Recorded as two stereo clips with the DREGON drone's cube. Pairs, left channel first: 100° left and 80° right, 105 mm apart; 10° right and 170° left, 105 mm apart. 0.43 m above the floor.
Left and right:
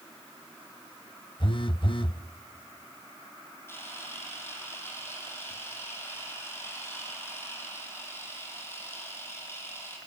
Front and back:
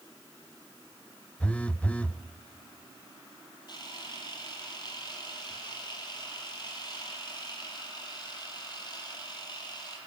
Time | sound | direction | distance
1.4 | a phone buzzing | 65° left | 0.7 m
3.7 | a camera shutter | 35° left | 7 m